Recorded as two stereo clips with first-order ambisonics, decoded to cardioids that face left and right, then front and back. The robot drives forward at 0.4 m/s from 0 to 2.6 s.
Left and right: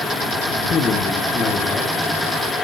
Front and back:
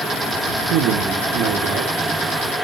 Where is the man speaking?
155° left, 1.5 m; by 2.5 s 165° left, 2 m.